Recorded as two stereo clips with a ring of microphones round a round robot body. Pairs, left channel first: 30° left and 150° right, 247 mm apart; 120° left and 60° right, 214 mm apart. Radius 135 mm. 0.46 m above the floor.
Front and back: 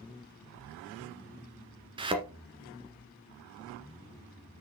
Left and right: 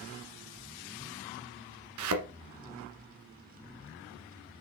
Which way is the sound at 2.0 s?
80° right.